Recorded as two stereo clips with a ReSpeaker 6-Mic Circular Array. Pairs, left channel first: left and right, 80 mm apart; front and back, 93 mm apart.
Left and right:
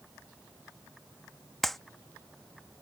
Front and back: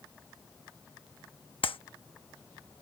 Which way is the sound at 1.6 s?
5° left.